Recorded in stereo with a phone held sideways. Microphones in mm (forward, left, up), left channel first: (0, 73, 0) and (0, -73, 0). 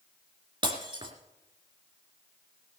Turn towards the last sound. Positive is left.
turn(degrees=-35)  # may be behind; listen again after turning